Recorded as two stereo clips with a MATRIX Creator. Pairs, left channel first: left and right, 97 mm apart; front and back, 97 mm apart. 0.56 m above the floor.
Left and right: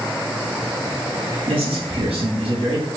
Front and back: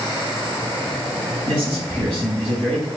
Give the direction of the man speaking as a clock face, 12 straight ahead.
3 o'clock.